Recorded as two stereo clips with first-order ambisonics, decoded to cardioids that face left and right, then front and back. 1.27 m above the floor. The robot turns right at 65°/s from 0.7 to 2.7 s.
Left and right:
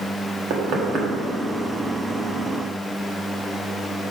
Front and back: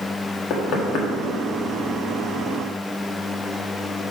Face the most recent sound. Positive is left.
turn(degrees=80)